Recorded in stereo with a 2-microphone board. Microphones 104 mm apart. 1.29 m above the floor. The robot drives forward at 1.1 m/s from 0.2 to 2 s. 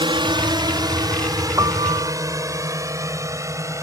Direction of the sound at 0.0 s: 45° right (ahead or behind).